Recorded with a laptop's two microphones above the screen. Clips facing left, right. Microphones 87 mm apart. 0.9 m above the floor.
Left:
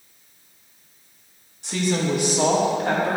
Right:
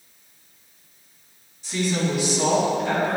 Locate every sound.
1.6 s a woman speaking: 65° left (ahead or behind), 1.5 m; by 3.2 s 45° left (ahead or behind), 2.5 m